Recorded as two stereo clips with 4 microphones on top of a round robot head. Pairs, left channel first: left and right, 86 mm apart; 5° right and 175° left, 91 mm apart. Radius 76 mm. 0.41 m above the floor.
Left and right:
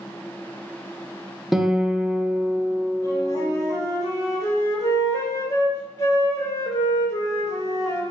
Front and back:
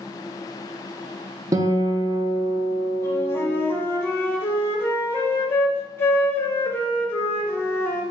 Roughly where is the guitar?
Behind.